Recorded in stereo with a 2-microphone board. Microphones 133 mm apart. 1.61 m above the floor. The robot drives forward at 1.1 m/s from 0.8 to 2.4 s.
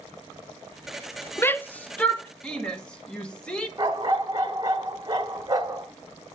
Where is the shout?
20° left (ahead or behind), 0.6 m; by 3.7 s 5° left (ahead or behind), 1.5 m.